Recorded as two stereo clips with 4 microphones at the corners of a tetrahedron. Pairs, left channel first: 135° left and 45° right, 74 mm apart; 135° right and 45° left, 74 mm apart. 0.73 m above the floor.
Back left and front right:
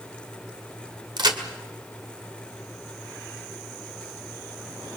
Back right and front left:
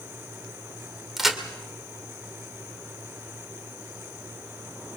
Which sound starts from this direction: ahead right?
A crack, at 1.2 s.